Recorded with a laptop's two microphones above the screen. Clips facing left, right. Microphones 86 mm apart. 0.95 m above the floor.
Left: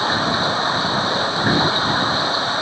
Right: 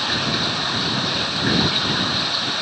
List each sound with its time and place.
0.0 s running water: 30° left (ahead or behind)